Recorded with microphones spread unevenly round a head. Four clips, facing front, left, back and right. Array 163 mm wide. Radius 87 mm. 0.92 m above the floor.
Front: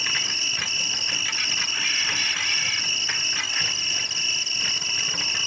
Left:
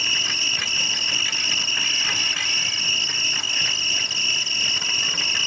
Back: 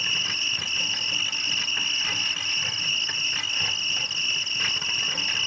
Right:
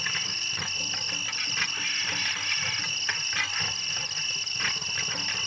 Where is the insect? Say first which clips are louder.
Left 5 dB, front 1 dB; 85° left.